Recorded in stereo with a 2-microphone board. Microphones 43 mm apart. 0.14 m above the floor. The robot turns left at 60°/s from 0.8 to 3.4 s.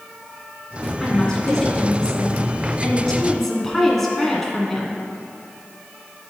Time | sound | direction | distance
1.0 | a woman speaking | 5° left (ahead or behind) | 1.4 m